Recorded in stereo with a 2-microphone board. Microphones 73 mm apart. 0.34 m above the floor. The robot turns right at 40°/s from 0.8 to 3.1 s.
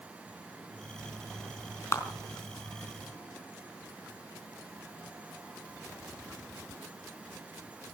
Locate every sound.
1.9 s a clap: 40° left (ahead or behind), 3.5 m